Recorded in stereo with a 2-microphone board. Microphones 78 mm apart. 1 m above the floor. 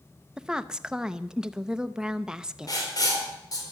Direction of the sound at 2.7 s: 55° left (ahead or behind).